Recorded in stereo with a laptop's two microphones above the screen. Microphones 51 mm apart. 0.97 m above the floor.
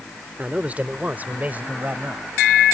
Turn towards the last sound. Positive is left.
turn(degrees=-40)  # may be behind; listen again after turning